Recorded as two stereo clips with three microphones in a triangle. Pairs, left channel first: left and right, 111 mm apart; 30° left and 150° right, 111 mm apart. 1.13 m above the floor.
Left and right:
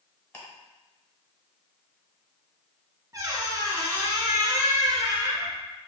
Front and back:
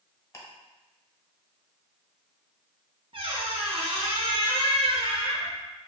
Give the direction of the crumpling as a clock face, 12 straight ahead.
I don't hear crumpling.